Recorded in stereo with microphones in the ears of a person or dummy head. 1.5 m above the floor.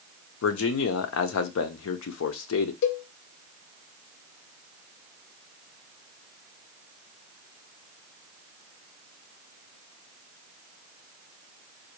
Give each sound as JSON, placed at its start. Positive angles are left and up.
{"t": 0.4, "sound": "a man speaking", "side_deg": 65, "distance_m": 0.7}
{"t": 2.8, "sound": "a cowbell", "side_deg": 60, "distance_m": 0.6}